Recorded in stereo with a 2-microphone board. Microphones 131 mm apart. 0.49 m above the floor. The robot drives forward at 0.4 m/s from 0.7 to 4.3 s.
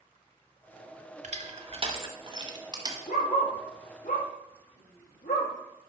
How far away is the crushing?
About 0.8 m.